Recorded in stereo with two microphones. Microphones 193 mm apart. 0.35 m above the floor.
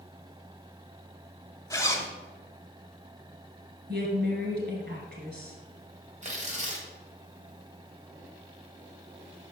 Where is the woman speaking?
55° right (ahead or behind), 2 m.